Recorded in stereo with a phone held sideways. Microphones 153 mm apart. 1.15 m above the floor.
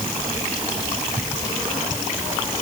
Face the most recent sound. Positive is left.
No sound to turn to.